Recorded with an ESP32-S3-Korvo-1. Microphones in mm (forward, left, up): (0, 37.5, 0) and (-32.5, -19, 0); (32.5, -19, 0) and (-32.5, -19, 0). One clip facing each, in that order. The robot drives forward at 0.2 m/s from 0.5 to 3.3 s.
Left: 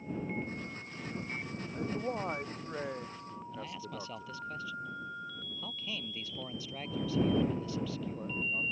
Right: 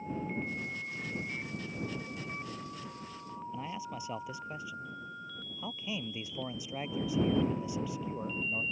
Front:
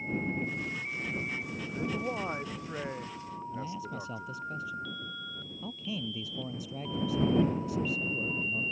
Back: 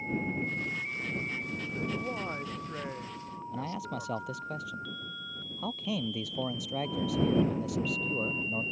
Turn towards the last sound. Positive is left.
turn(degrees=165)